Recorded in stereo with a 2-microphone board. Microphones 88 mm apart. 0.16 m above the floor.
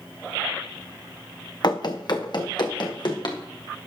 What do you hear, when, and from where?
1.6 s running footsteps: 55° left (ahead or behind), 1.0 m